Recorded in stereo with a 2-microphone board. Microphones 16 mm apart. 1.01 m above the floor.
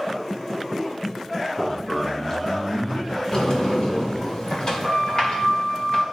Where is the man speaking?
Centre (ahead or behind), 1.2 m; by 4.3 s 55° left (ahead or behind), 4.5 m.